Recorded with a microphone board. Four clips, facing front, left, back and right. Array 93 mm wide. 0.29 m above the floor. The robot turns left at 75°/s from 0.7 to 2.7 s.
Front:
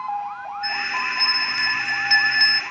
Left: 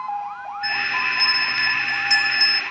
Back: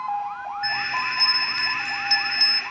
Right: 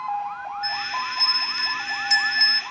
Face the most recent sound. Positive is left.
turn(degrees=-10)